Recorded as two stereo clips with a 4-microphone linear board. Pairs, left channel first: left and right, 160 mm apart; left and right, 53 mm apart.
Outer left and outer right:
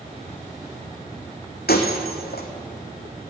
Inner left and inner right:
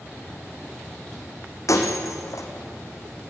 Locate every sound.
1.7 s breaking glass: 75° left (ahead or behind), 3.5 m